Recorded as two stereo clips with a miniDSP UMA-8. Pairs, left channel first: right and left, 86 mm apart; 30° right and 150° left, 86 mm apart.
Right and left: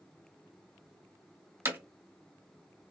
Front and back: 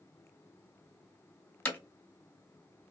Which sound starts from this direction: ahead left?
Hammering, at 1.6 s.